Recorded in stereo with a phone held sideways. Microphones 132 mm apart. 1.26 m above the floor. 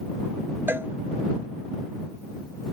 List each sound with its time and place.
0.7 s a cowbell: 15° right (ahead or behind)